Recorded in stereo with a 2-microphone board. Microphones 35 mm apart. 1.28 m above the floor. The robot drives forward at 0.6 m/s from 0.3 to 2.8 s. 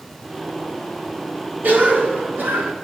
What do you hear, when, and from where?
1.6 s a cough: 55° right (ahead or behind), 2.5 m; by 2.7 s 70° right (ahead or behind), 2.5 m